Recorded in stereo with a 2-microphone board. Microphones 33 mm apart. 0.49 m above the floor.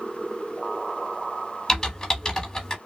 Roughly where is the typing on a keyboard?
Centre.